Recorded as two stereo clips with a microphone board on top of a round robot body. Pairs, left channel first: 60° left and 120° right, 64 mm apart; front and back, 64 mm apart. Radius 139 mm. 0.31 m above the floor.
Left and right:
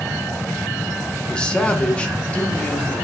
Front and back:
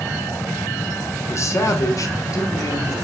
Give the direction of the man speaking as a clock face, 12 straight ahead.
12 o'clock.